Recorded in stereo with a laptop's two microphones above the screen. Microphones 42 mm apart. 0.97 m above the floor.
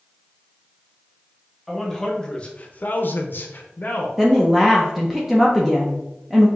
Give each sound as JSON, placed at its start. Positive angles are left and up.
{"t": 1.7, "sound": "a man speaking", "side_deg": 5, "distance_m": 0.9}
{"t": 4.2, "sound": "a woman speaking", "side_deg": -5, "distance_m": 0.6}